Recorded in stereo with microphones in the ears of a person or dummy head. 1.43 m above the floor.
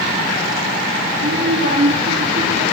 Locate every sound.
1.1 s a child speaking: 40° right (ahead or behind), 3 m; by 2.6 s 25° right (ahead or behind), 3 m